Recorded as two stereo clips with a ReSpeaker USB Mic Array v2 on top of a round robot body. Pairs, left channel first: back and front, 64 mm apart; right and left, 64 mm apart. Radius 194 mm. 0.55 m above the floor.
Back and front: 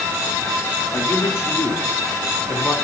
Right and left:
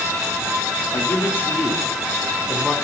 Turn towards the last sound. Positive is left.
turn(degrees=165)